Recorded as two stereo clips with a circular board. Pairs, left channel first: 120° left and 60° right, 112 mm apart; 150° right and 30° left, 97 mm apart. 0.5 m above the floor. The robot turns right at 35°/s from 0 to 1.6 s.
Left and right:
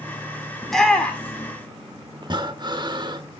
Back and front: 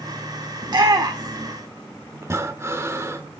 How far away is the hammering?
I don't hear hammering.